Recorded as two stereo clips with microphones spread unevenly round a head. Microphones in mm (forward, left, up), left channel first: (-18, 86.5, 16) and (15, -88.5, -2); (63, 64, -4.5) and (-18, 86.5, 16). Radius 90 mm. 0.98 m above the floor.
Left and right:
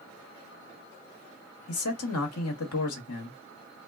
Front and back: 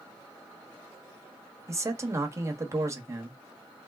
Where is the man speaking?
105° left, 1.2 m.